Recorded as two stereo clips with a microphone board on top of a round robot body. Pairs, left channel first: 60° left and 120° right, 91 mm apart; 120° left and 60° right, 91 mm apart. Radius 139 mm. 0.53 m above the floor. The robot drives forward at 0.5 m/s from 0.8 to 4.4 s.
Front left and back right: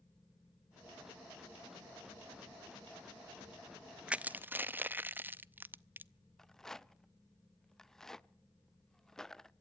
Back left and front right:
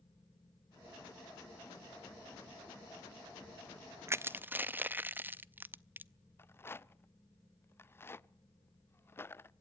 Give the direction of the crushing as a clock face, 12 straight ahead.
2 o'clock.